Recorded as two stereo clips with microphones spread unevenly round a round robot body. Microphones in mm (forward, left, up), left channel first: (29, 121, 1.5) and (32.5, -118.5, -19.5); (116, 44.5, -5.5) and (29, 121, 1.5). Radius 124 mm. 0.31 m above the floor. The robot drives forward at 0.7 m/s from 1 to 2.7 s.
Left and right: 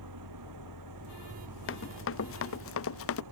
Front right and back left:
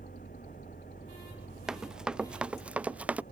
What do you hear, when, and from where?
0.0 s an engine running: 95° right; by 3.3 s 100° right
1.7 s running footsteps: 55° left; by 3.2 s 60° left